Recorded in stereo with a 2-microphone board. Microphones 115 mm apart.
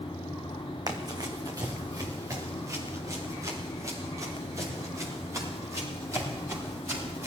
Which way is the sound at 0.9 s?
35° right (ahead or behind).